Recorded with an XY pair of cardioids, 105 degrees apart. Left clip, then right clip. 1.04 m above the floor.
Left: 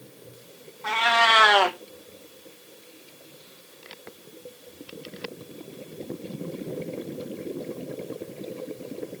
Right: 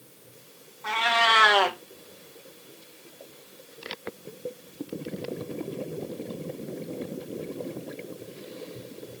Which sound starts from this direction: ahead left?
A cat meowing, at 0.8 s.